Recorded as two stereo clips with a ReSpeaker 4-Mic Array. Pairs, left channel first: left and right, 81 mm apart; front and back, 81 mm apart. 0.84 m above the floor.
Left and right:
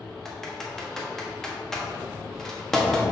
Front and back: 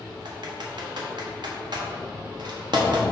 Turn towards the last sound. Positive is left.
turn(degrees=175)